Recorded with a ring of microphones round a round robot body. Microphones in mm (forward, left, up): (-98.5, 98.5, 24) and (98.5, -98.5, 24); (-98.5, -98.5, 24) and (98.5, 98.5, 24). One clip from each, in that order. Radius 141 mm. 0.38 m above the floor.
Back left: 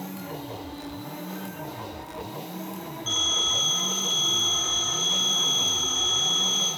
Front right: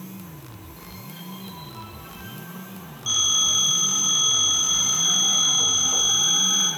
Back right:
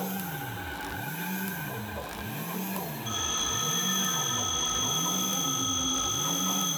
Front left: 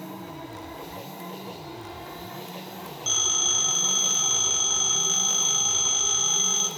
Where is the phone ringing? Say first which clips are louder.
Front right 3 dB, front left 7 dB; 25° left, 3.5 m.